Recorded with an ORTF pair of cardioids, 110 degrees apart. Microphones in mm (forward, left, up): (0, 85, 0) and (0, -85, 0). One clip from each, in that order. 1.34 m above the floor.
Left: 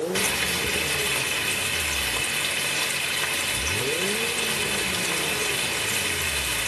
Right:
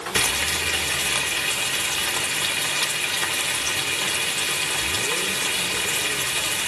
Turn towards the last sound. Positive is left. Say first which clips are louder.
# right 5 dB
turn(degrees=-45)